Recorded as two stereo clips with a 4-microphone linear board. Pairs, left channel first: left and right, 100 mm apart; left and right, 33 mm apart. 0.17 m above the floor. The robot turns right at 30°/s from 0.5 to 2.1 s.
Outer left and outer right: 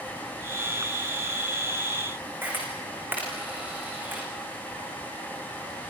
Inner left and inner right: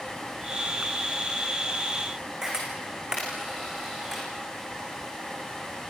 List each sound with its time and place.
2.4 s a camera shutter: 20° right (ahead or behind), 6.5 m